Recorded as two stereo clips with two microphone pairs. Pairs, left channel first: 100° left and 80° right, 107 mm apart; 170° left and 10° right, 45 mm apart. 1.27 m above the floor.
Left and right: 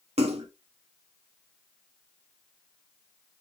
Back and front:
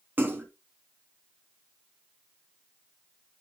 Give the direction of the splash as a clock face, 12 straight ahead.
2 o'clock.